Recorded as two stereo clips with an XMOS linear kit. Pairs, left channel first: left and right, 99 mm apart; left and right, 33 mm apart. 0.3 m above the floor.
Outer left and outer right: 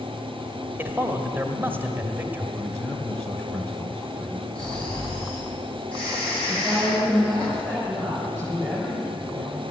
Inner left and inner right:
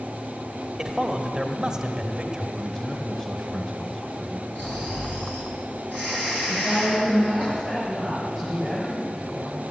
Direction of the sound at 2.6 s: 25° left (ahead or behind).